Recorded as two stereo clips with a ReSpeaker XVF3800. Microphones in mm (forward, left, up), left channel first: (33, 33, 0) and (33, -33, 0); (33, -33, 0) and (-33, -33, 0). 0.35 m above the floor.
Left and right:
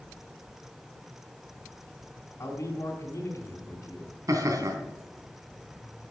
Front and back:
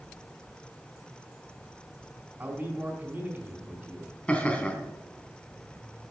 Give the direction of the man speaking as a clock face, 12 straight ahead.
8 o'clock.